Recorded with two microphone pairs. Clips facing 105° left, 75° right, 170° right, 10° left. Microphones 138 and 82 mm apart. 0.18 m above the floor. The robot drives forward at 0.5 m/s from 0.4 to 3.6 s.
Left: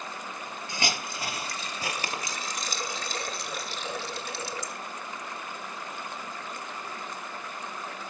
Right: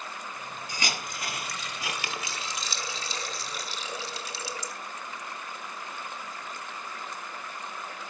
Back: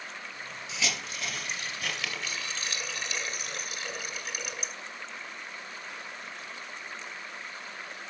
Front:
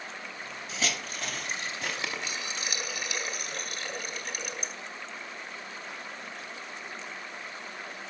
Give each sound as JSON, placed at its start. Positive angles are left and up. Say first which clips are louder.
{"t": 0.7, "sound": "a hiss", "louder": "left 3 dB, front 1 dB", "azimuth_deg": 45, "distance_m": 1.9}